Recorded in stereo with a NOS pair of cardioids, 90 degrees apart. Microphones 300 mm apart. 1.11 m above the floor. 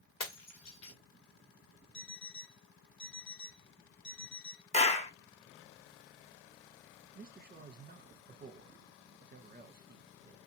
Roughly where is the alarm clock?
Ahead left.